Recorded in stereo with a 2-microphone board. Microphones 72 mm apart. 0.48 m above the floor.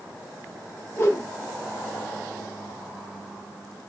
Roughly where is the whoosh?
Left.